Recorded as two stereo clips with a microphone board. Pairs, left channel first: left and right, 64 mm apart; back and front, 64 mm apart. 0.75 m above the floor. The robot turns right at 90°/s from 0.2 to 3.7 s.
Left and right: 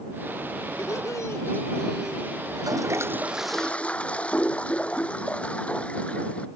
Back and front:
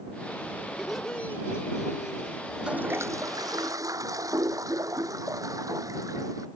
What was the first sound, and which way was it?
Laughter, 75° left.